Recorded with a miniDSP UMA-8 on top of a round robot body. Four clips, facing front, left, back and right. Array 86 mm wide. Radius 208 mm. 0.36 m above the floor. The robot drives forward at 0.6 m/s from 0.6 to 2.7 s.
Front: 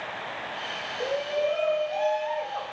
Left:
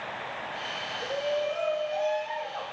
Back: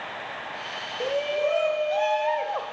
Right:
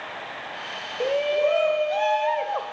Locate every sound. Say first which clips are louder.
1.0 s a shout: right 8 dB, back 2 dB; 100° right, 2.5 m; by 2.7 s 125° right, 3 m